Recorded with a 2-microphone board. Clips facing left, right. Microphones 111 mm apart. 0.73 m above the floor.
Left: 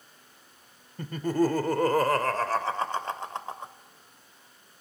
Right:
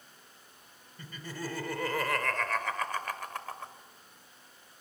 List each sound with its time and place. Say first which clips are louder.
1.0 s laughter: left 16 dB; 55° left (ahead or behind), 2 m; by 3.7 s 20° left (ahead or behind), 2.5 m